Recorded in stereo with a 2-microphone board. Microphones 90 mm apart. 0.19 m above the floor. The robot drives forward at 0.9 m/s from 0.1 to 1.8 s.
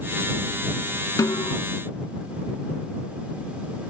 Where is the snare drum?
45° left (ahead or behind); by 1.6 s 50° left (ahead or behind).